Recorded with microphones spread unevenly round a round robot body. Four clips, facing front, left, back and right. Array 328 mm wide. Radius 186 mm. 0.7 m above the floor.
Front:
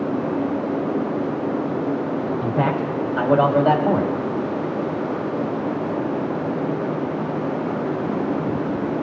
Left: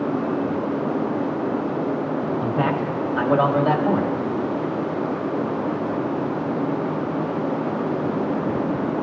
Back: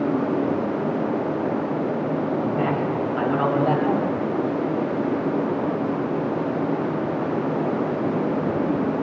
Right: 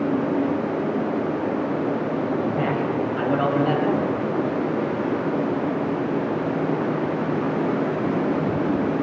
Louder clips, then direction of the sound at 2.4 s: Left 1 dB, front 1 dB; 35° left.